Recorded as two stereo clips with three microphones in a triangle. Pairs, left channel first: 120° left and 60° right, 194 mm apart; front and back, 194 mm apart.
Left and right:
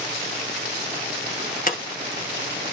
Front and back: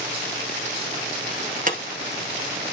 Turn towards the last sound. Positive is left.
turn(degrees=145)